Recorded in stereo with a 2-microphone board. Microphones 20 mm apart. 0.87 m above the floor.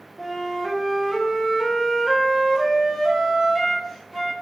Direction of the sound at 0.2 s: 5° right (ahead or behind).